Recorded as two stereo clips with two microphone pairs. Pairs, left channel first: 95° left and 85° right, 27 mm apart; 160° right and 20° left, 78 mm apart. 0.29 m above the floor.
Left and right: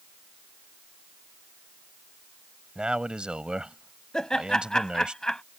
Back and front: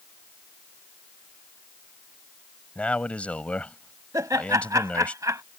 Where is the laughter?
40° left.